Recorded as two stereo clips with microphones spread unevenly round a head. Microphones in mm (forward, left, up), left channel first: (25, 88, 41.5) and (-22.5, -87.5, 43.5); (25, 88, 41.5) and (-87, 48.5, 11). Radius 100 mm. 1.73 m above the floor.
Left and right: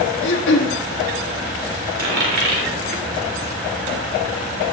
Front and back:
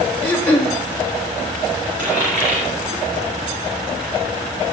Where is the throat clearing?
85° left, 1.8 m.